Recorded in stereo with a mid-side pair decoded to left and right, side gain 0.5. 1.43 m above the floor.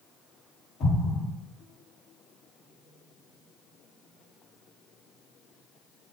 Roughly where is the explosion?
Ahead left.